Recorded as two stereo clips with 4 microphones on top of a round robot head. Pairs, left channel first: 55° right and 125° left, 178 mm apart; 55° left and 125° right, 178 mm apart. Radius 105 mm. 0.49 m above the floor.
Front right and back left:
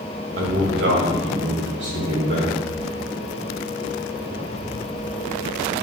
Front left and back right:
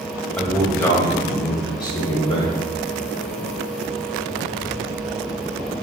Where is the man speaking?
135° left, 3 m; by 2.5 s 115° left, 4.5 m.